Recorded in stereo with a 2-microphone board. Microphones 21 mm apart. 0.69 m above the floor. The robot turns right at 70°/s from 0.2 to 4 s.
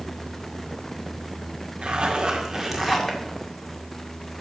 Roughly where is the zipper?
Right.